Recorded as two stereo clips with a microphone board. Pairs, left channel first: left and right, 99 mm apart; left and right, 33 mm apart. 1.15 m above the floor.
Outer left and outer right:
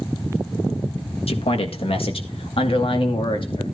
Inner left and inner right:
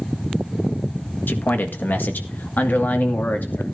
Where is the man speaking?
75° left (ahead or behind), 1.6 m; by 3.6 s 60° left (ahead or behind), 2.5 m.